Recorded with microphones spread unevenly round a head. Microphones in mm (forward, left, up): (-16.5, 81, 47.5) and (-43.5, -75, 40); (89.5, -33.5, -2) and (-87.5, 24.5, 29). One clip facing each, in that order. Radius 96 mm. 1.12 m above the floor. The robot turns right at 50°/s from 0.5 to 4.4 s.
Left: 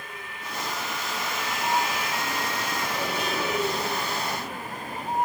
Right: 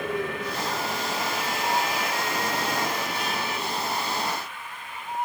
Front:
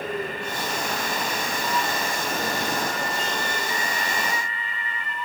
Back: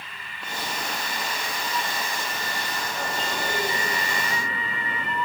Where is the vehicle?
65° right; by 5.3 s 130° left.